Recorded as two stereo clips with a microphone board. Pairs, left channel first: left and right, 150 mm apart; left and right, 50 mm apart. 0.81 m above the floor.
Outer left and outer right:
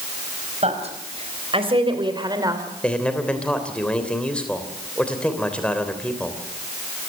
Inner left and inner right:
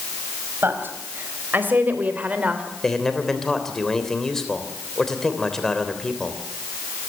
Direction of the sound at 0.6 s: 45° right (ahead or behind).